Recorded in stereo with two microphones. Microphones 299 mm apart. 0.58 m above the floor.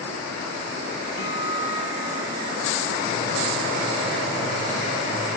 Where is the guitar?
55° left (ahead or behind), 5.5 m.